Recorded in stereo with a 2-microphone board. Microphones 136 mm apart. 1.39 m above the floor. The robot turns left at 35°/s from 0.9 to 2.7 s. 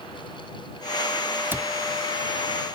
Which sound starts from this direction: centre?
A cupboard door, at 1.5 s.